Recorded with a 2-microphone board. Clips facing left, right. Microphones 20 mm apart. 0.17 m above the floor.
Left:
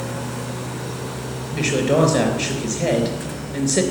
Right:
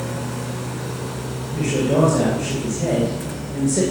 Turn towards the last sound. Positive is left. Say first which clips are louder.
# left 1 dB
turn(degrees=60)  # may be behind; listen again after turning